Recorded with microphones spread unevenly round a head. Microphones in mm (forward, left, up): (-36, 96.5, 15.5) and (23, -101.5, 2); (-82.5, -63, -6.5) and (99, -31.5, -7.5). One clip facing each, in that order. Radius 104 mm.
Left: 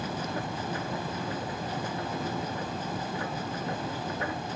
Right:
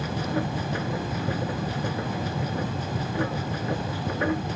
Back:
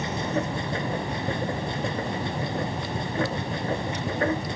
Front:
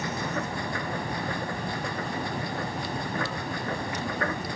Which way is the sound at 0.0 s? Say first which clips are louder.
Right 6 dB, back 4 dB; 105° right.